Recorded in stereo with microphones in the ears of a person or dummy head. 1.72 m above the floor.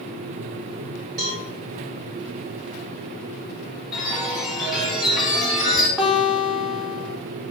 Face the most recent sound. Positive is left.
turn(degrees=0)  # may be behind; listen again after turning